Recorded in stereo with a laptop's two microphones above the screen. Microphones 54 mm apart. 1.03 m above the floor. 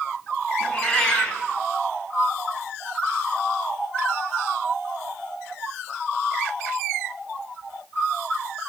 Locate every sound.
0.6 s a cat meowing: 20° left (ahead or behind), 4 m